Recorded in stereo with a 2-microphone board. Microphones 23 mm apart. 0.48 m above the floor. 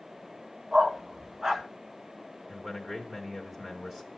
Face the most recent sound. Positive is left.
turn(degrees=-20)  # may be behind; listen again after turning